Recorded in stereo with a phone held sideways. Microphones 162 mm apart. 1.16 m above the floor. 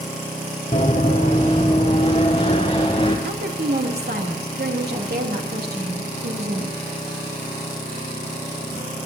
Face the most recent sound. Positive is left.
turn(degrees=-80)